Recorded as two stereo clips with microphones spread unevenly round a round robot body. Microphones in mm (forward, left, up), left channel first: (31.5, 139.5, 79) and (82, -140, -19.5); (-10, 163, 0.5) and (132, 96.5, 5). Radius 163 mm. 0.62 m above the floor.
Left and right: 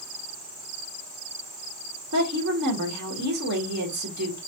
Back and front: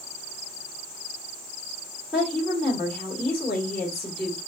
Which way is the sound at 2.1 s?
115° right.